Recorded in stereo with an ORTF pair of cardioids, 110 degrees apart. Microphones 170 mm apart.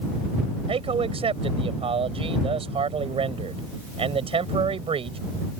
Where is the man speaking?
30° right.